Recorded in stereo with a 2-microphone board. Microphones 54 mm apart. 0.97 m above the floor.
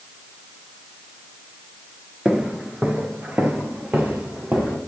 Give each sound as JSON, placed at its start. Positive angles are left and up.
{"t": 2.2, "sound": "footsteps", "side_deg": -15, "distance_m": 0.9}